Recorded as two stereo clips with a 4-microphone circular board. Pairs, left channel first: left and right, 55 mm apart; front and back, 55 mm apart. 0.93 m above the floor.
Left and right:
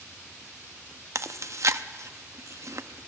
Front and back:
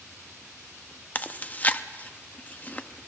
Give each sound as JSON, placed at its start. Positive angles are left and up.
{"t": 1.1, "sound": "chewing", "azimuth_deg": -60, "distance_m": 0.7}